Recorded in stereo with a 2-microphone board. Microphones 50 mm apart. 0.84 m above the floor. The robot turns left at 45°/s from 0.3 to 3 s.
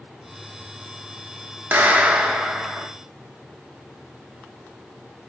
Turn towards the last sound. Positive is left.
turn(degrees=160)